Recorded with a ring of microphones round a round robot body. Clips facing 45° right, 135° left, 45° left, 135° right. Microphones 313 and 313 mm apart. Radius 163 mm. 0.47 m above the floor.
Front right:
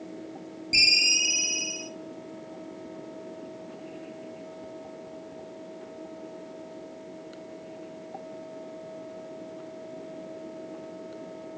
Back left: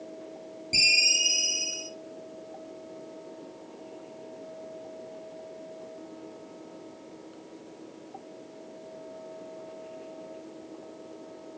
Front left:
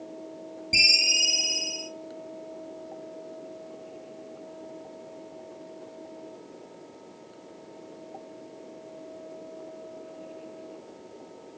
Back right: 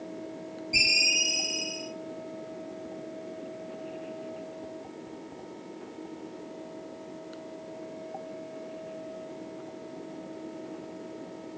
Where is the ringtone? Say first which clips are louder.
Front right 3 dB, back right 1 dB; 30° left, 2.5 m.